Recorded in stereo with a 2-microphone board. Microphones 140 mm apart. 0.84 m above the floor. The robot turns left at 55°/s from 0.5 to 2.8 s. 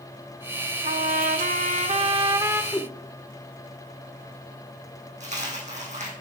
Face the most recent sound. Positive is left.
turn(degrees=-55)  # may be behind; listen again after turning